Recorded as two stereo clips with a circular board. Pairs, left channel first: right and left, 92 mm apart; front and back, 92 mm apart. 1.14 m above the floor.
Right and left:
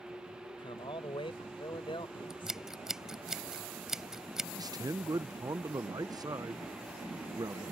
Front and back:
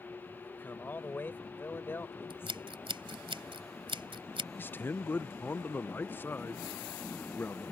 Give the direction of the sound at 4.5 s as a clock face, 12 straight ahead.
10 o'clock.